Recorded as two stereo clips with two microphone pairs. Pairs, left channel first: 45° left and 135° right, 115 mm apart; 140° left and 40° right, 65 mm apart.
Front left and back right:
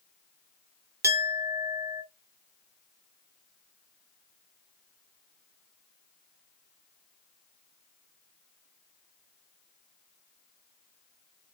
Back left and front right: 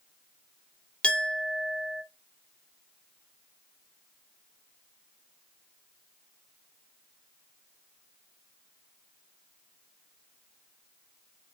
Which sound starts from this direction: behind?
A clink, at 1.0 s.